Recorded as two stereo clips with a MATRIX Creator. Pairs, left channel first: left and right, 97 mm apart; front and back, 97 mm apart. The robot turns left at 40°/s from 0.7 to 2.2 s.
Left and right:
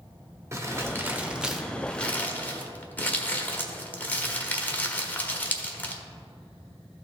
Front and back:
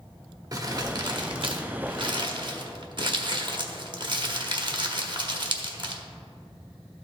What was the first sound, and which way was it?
Crumpling, 140° right.